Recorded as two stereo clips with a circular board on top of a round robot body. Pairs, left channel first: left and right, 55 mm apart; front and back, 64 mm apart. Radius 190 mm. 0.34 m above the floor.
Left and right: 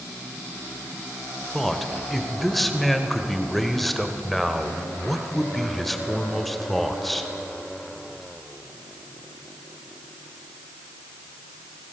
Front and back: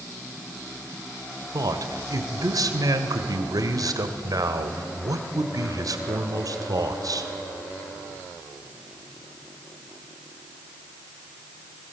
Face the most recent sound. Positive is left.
turn(degrees=180)